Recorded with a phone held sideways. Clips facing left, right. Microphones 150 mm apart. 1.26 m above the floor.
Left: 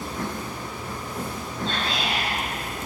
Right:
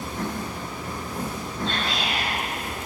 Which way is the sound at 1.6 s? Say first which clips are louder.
Left 1 dB; 65° right (ahead or behind).